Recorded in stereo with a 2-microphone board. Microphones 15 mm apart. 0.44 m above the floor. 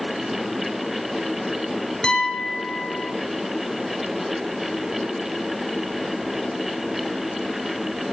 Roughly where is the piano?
Left.